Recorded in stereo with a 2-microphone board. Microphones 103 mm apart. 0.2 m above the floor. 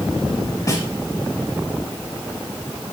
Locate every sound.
0.7 s a snare drum: 35° left (ahead or behind), 3.5 m